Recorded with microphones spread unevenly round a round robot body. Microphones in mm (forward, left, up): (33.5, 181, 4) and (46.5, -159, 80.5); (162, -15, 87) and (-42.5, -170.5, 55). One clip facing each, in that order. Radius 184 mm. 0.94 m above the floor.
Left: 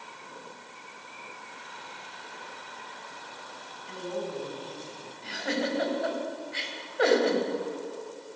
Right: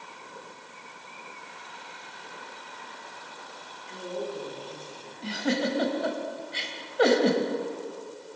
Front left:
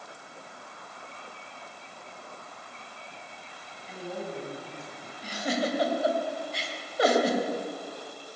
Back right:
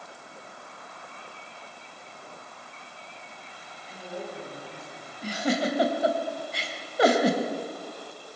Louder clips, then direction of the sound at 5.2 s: Right 4 dB, back right 3 dB; 140° right.